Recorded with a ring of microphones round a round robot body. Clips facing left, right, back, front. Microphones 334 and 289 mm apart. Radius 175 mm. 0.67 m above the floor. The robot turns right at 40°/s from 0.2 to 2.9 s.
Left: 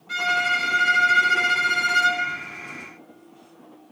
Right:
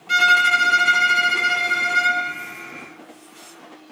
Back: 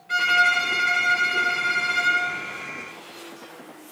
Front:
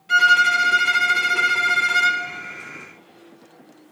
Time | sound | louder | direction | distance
0.1 | a violin | right 3 dB, front 2 dB | 50° right | 1.5 m